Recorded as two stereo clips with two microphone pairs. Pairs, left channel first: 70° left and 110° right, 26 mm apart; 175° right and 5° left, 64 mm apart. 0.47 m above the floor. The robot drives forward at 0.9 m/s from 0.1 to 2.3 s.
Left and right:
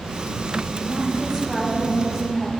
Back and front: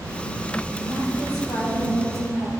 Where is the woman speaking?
Straight behind, 2.5 m.